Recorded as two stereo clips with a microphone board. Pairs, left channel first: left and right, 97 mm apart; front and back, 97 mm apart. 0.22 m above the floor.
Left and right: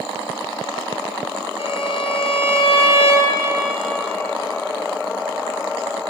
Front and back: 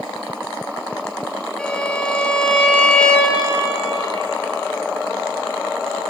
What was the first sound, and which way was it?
A violin, 80° left.